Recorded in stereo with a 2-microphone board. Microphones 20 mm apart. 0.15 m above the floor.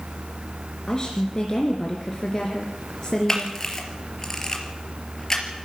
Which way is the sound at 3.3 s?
25° left (ahead or behind).